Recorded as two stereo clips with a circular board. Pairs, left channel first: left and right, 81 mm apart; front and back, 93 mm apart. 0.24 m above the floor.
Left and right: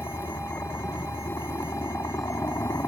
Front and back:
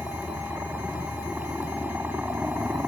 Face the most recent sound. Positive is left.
turn(degrees=115)